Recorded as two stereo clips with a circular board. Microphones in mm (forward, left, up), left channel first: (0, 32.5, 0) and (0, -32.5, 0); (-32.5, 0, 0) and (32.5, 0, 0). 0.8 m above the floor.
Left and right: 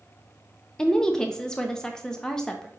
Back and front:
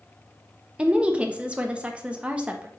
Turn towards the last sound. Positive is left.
turn(degrees=35)